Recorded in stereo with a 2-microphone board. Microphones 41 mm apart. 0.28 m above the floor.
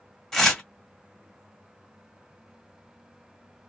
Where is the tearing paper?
5° left (ahead or behind), 1.3 m.